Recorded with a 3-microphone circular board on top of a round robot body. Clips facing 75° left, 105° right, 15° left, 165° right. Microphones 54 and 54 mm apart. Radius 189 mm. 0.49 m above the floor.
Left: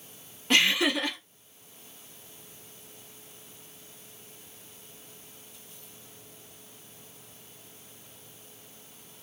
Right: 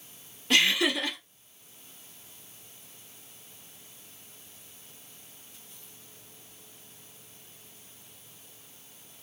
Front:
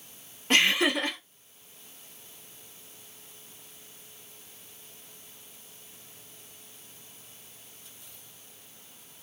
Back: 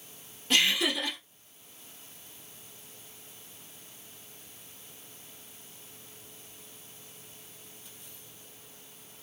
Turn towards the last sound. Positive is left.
turn(degrees=25)